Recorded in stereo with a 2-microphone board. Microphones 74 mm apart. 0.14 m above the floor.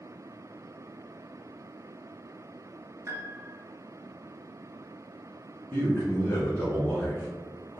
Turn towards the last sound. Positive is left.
turn(degrees=25)  # may be behind; listen again after turning